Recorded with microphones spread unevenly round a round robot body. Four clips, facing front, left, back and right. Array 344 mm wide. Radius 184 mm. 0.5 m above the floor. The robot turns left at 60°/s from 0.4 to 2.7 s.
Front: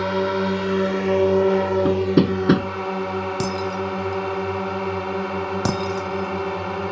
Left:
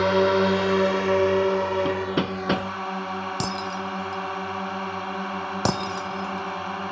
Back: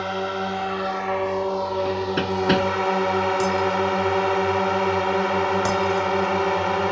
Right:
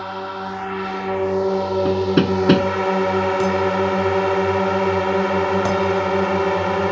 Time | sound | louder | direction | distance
0.0 | a drone | left 8 dB, front 4 dB | 45° left | ?
1.9 | hammering | right 8 dB, front 6 dB | 15° right | ?
3.4 | breaking glass | right 11 dB, back 4 dB | 25° left | ?